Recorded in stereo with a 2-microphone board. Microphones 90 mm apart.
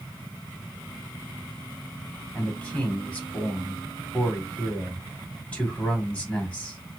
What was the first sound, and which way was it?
A man speaking, 15° left (ahead or behind).